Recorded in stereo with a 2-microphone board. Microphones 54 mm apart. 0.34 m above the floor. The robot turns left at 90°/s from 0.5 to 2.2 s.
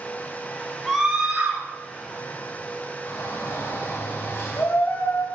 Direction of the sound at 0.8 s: 5° left.